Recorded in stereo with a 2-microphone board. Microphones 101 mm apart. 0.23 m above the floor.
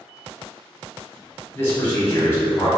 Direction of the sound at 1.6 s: 20° left (ahead or behind).